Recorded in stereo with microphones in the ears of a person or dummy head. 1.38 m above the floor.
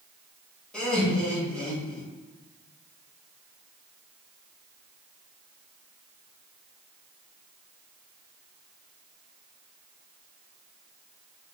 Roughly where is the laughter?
Centre.